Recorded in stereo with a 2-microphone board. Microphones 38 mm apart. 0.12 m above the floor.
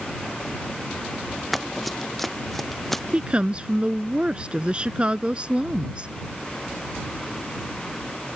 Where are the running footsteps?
Centre (ahead or behind); by 3.0 s 5° left (ahead or behind).